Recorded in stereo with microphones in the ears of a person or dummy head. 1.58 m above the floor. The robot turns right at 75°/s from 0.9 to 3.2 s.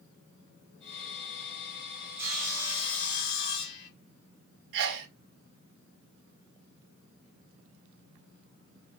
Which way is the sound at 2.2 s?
10° right.